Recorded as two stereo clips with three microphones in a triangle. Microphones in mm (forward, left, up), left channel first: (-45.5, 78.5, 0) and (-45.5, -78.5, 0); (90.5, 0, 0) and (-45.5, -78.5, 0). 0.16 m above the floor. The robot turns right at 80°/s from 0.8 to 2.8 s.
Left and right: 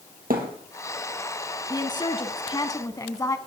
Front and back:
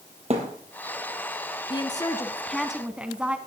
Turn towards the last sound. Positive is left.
turn(degrees=135)